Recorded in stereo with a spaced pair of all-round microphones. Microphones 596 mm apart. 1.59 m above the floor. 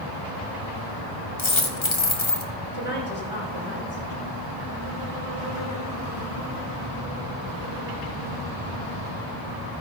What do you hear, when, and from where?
1.4 s a dropped coin: 45° left (ahead or behind), 1.8 m
2.7 s a woman speaking: 60° right (ahead or behind), 5.5 m